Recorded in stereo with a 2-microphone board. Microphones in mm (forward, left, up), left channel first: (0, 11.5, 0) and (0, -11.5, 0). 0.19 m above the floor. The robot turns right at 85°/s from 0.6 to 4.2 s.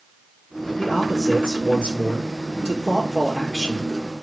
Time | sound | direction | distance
0.8 | a man speaking | 140° left | 4 m